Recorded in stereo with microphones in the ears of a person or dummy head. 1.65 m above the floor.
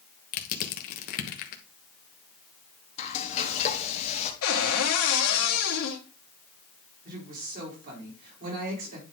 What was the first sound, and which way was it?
Crushing, 50° left (ahead or behind).